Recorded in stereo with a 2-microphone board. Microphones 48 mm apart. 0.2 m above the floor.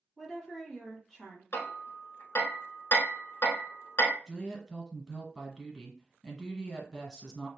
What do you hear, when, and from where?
0.2 s a woman speaking: centre (ahead or behind), 1.3 m
1.5 s hammering: 65° left (ahead or behind), 0.8 m
4.3 s a woman speaking: centre (ahead or behind), 1.4 m